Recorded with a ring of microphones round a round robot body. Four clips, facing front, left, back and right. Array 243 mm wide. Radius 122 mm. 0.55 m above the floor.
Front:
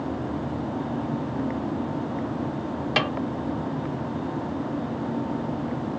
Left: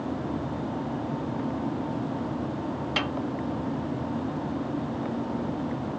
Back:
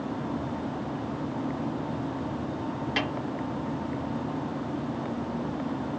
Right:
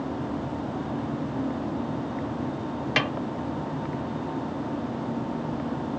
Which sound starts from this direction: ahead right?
A snare drum, at 3.0 s.